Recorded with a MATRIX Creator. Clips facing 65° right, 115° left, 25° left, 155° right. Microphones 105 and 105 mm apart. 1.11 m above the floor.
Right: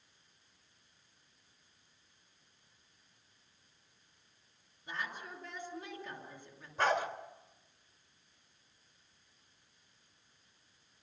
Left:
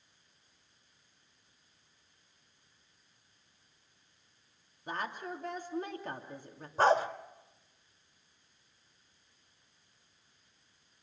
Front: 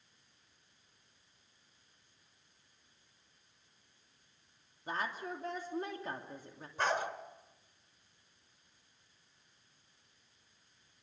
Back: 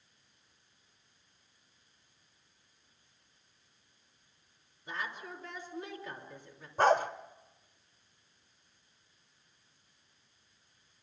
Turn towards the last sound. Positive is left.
turn(degrees=160)